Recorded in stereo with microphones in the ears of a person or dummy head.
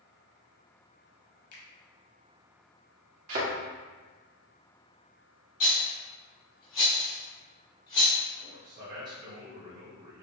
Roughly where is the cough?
I don't hear a cough.